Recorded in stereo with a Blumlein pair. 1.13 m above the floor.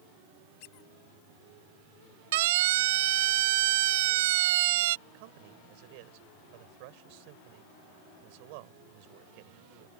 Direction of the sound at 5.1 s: 45° right.